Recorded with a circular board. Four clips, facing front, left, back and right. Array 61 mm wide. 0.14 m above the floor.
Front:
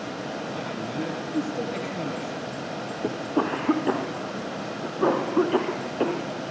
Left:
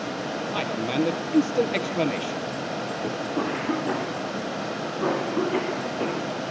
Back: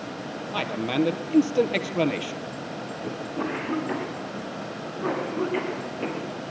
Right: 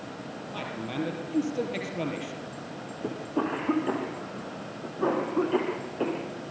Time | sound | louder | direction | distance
0.5 | a man speaking | left 7 dB, back 5 dB | 145° left | 3 m
3.0 | a cough | even, front 5 dB | 5° right | 4.5 m